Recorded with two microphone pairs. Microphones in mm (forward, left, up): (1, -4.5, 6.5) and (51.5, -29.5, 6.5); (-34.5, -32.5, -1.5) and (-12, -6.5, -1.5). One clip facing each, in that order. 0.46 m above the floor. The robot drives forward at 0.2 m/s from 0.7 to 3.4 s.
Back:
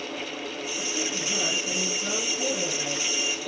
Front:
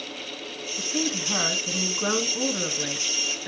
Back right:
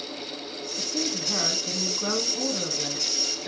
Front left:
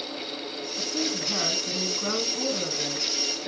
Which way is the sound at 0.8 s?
50° right.